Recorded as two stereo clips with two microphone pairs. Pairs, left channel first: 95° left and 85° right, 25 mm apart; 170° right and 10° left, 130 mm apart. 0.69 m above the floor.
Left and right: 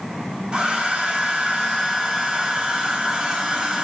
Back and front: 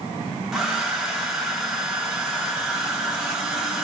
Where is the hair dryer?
75° right, 1.4 m.